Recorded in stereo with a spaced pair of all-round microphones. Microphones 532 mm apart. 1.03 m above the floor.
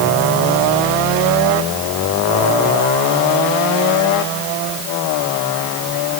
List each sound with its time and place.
Only background noise.